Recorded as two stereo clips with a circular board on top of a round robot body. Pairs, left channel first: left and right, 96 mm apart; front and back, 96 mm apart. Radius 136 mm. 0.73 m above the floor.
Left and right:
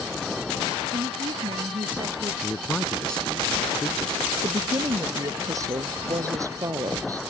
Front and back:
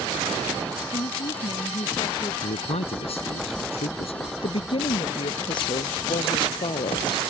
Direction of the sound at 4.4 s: 35° right.